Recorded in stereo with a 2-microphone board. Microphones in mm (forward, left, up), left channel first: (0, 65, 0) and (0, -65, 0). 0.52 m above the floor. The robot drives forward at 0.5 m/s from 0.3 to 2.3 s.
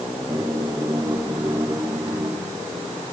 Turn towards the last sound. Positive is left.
No sound to turn to.